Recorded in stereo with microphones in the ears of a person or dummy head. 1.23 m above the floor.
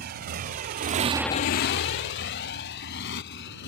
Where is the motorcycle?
50° right (ahead or behind); by 3.7 s 55° left (ahead or behind).